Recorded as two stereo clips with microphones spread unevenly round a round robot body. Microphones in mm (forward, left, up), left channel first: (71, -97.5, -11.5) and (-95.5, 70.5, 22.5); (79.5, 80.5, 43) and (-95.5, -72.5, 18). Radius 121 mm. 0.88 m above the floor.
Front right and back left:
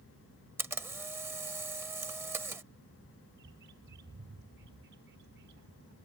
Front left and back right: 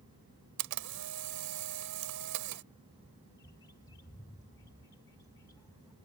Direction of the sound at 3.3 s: 110° left.